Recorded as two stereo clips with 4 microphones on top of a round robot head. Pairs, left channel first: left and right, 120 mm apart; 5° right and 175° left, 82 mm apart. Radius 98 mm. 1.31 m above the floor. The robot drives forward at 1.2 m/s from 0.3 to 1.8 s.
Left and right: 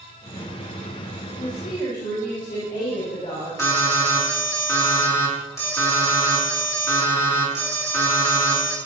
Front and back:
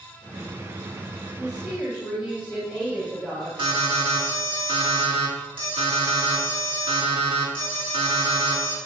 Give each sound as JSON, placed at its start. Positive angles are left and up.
{"t": 1.4, "sound": "a woman speaking", "azimuth_deg": 85, "distance_m": 2.5}
{"t": 3.6, "sound": "an alarm", "azimuth_deg": 160, "distance_m": 2.5}